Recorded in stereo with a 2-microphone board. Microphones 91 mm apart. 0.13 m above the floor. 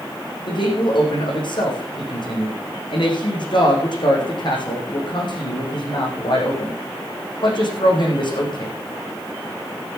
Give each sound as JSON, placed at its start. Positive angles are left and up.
{"t": 0.5, "sound": "a man speaking", "side_deg": 55, "distance_m": 6.0}